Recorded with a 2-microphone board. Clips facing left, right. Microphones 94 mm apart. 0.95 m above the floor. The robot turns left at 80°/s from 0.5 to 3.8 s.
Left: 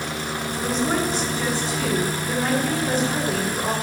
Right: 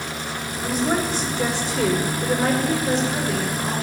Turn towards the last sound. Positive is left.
turn(degrees=110)